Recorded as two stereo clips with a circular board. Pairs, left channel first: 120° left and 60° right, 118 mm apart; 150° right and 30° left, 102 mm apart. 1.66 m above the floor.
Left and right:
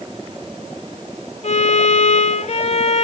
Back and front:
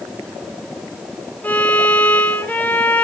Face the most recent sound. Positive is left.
turn(degrees=140)